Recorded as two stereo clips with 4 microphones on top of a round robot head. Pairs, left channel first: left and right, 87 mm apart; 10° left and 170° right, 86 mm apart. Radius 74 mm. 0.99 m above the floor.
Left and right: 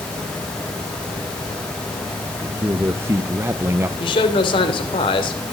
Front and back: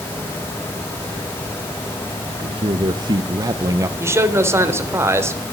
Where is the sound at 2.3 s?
155° right, 1.4 m; by 3.9 s 140° right, 0.8 m.